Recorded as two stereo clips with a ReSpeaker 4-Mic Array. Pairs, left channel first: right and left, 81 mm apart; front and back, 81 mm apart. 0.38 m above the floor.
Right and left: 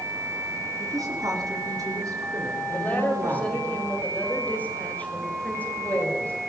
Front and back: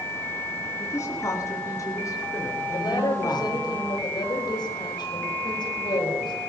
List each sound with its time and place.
0.8 s a woman speaking: 50° left, 5 m; by 3.7 s 45° left, 7 m
2.7 s a woman speaking: 20° right, 6.5 m